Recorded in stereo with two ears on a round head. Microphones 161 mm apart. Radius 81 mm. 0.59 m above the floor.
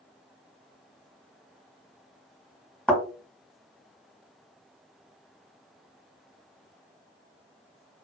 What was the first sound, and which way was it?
A thud, 5° left (ahead or behind).